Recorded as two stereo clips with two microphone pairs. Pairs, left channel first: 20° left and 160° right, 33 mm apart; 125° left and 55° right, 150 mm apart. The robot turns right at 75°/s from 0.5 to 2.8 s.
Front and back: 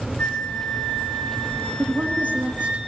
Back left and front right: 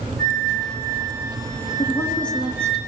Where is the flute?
35° right, 4.5 m; by 2.8 s 140° left, 4.5 m.